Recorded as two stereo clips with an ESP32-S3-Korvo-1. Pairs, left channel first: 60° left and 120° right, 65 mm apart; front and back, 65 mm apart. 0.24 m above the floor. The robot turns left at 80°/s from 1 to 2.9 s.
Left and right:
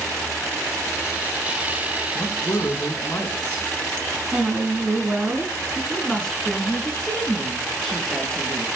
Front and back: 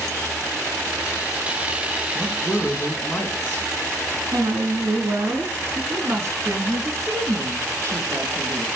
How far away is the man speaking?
About 2.5 m.